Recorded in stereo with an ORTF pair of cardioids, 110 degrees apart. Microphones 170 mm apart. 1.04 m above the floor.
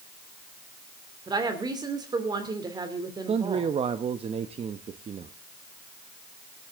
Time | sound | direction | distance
1.3 | a woman speaking | 25° right | 2.5 m
3.3 | a man speaking | 35° right | 1.0 m